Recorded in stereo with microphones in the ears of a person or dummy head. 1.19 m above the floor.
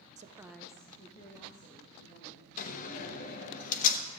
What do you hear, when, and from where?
0.2 s a woman speaking: 30° right (ahead or behind), 0.6 m; by 2.5 s 50° left (ahead or behind), 2.5 m
2.6 s a door slam: 40° left (ahead or behind), 1.0 m